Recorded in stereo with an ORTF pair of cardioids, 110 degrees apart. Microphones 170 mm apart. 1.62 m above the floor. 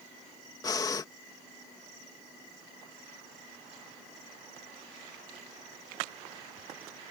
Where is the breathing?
20° left.